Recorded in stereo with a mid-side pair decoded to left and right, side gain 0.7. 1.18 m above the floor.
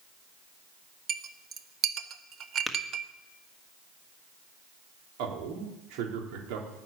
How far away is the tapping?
About 1.6 m.